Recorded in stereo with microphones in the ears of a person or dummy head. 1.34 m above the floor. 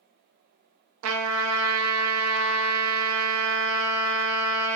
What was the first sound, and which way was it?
A trumpet, 75° right (ahead or behind).